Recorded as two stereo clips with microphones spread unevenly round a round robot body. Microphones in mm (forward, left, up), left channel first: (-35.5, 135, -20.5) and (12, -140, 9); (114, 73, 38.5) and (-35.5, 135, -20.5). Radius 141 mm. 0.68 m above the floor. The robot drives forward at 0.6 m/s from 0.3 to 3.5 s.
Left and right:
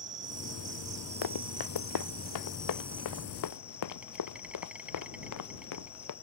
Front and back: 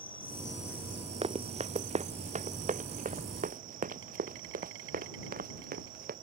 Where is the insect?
55° right; by 6.2 s 165° right.